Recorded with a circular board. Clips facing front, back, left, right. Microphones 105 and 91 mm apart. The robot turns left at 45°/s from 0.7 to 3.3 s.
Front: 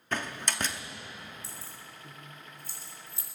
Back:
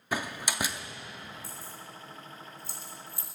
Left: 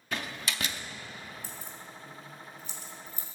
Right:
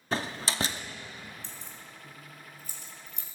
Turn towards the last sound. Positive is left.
turn(degrees=-70)